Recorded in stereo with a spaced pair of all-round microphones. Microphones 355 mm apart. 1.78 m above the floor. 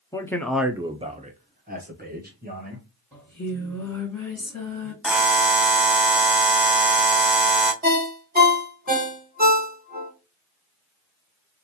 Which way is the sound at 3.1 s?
5° left (ahead or behind).